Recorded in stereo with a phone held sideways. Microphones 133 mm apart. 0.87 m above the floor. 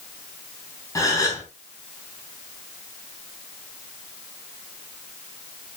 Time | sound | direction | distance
0.9 | a gasp | 25° left (ahead or behind) | 3.5 m